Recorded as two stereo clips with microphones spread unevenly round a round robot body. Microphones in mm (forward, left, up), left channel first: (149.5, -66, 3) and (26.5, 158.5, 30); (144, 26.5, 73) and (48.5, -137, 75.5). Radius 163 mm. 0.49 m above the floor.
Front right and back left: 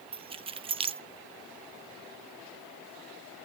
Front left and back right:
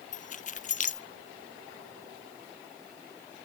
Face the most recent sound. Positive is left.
turn(degrees=50)